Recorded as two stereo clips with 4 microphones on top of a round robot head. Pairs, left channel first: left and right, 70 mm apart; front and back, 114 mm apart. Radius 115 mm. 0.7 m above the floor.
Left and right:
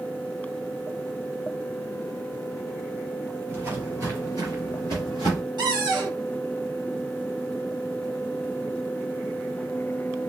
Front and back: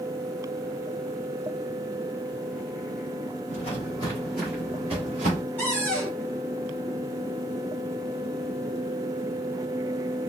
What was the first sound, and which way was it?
Footsteps, 40° right.